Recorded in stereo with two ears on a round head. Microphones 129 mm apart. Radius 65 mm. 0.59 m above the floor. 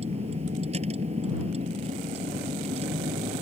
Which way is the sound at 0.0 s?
45° right (ahead or behind).